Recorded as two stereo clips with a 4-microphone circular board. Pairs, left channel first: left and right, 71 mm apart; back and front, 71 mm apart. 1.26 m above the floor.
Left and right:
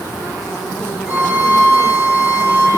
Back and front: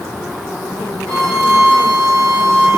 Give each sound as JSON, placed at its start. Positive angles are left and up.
{"t": 1.1, "sound": "a violin", "azimuth_deg": -30, "distance_m": 8.5}